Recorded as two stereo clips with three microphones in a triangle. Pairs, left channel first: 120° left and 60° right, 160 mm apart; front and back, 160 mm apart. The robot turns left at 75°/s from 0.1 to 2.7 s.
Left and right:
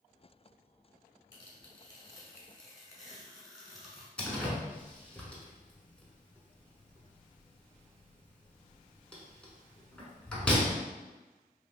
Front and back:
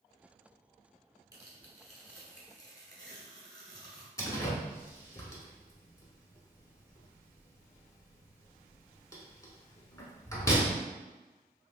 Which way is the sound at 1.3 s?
140° left.